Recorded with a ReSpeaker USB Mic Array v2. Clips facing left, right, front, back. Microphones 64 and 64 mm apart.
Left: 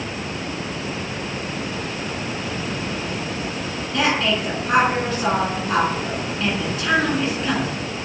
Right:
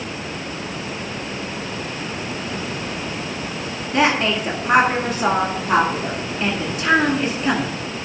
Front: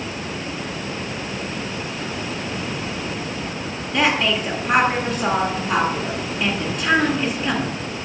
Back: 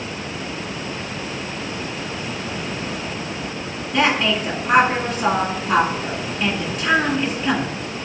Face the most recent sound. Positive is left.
turn(degrees=-110)